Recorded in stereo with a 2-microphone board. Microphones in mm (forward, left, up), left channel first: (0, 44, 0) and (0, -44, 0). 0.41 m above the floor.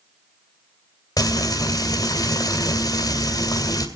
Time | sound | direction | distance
1.2 | frying | 45° left (ahead or behind) | 2.5 m